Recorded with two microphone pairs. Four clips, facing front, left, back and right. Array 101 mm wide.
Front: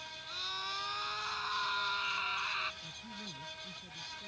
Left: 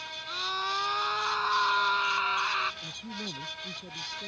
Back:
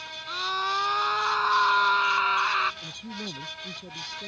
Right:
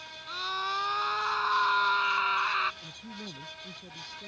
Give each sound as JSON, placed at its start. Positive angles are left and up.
{"t": 0.3, "sound": "a scream", "azimuth_deg": 180}
{"t": 2.8, "sound": "a man speaking", "azimuth_deg": 165}